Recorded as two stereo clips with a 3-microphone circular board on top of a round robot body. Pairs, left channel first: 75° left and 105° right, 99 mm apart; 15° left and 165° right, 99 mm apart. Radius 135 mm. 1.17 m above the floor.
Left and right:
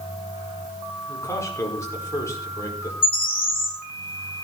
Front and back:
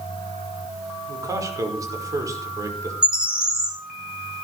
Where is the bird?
115° left, 5 m.